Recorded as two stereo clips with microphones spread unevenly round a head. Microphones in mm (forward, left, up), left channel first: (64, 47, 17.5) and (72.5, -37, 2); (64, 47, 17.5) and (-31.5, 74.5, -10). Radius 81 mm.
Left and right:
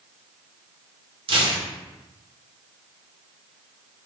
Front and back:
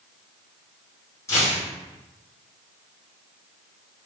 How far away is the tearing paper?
About 0.9 m.